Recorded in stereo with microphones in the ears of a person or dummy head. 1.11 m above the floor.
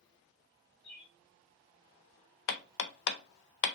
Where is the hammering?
65° left (ahead or behind), 0.5 m.